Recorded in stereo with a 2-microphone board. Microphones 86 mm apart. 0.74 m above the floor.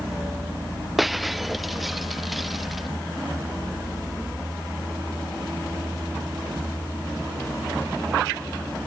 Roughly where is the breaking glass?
Centre.